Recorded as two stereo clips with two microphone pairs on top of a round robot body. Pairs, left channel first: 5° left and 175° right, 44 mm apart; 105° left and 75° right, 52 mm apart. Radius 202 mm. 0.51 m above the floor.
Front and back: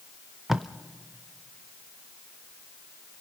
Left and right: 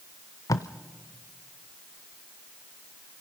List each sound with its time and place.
0.5 s tape being pulled: 100° left, 0.5 m